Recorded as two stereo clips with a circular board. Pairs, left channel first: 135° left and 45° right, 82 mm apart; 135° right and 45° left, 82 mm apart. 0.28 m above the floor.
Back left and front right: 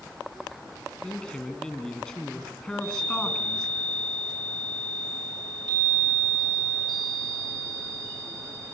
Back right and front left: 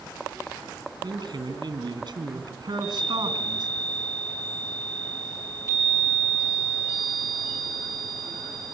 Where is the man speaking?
50° left, 3 m.